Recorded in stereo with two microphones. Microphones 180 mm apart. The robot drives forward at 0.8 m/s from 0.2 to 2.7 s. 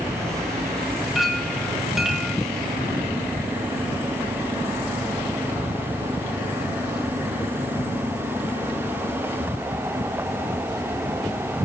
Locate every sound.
1.1 s a clink: centre (ahead or behind), 1.4 m